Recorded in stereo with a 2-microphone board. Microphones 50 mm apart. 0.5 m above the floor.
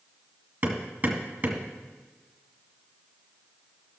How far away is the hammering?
About 1.8 m.